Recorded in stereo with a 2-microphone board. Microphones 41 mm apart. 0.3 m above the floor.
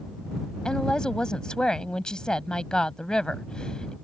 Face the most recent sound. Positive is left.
turn(degrees=20)  # may be behind; listen again after turning